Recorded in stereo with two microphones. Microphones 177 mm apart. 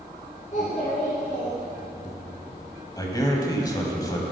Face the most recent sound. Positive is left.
turn(degrees=20)  # may be behind; listen again after turning